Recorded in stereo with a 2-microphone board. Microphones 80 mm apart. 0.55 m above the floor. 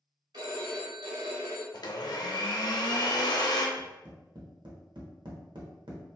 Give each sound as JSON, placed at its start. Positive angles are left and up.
{"t": 0.3, "sound": "a phone ringing", "side_deg": -70, "distance_m": 1.6}
{"t": 1.7, "sound": "a blender", "side_deg": 60, "distance_m": 0.5}
{"t": 3.8, "sound": "tapping", "side_deg": -75, "distance_m": 0.8}